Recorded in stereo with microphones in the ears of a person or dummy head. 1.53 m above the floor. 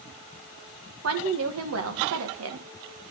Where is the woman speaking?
90° right, 1.4 m.